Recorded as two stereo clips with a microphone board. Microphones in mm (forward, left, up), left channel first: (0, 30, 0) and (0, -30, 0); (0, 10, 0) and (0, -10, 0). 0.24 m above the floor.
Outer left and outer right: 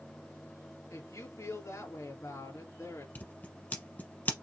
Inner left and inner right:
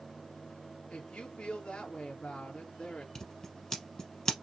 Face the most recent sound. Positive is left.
turn(degrees=30)  # may be behind; listen again after turning